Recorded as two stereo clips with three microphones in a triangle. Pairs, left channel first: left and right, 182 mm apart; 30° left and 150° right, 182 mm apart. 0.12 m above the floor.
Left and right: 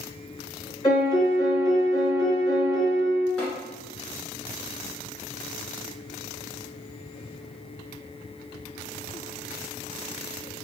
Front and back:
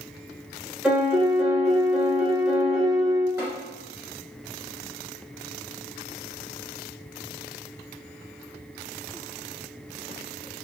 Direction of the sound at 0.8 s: 135° left.